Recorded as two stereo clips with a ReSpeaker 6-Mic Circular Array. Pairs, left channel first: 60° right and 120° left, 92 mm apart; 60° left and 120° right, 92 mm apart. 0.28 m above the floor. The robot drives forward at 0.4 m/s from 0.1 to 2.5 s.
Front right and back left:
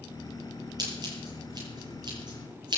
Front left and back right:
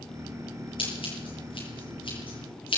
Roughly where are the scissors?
Left.